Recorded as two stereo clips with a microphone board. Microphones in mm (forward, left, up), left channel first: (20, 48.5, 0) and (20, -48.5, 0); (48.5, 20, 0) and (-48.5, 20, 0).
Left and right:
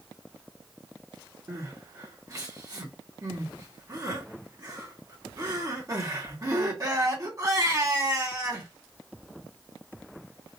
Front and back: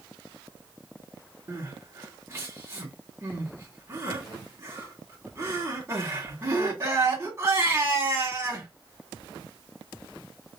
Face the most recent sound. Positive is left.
turn(degrees=-130)